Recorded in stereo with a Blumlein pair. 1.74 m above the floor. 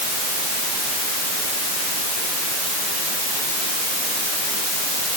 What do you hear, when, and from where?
Only background noise.